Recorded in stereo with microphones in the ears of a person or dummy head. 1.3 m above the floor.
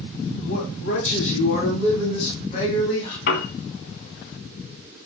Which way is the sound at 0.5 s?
75° left (ahead or behind).